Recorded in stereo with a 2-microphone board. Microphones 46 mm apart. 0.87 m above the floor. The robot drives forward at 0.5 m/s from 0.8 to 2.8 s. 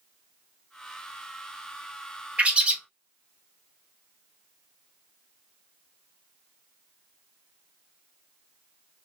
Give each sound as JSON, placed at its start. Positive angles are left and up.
{"t": 2.4, "sound": "a bird", "side_deg": -25, "distance_m": 0.7}